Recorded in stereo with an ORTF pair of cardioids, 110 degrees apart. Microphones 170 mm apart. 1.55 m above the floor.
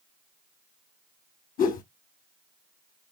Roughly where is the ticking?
I don't hear ticking.